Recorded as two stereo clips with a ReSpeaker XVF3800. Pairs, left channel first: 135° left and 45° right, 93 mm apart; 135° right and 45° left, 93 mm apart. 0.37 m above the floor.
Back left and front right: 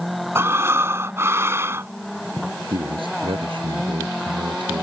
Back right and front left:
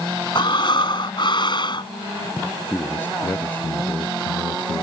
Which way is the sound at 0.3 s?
105° right.